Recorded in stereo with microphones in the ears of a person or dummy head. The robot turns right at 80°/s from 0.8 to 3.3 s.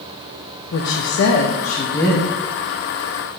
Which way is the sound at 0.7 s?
70° left.